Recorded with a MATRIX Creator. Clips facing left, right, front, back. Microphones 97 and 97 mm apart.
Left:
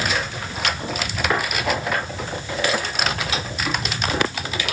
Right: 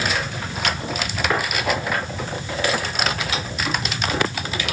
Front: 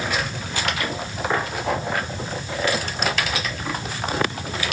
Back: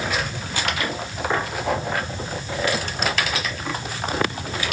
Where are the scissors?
I don't hear scissors.